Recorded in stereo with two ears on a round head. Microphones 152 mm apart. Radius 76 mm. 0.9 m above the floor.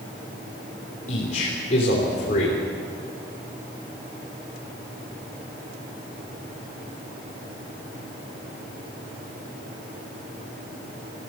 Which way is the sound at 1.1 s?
45° left (ahead or behind).